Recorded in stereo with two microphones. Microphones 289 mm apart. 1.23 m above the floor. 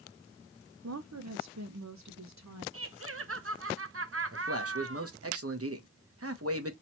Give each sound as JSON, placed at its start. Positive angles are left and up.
{"t": 0.8, "sound": "a woman speaking", "side_deg": -65, "distance_m": 0.6}
{"t": 2.7, "sound": "laughter", "side_deg": -55, "distance_m": 0.7}
{"t": 4.3, "sound": "a man speaking", "side_deg": -60, "distance_m": 1.0}